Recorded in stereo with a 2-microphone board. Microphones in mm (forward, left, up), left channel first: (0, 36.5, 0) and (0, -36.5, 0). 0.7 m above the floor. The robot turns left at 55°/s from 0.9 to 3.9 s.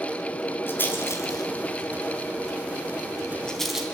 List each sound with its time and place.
0.7 s a rattle: 30° left (ahead or behind), 3 m; by 3.9 s 10° right (ahead or behind), 3 m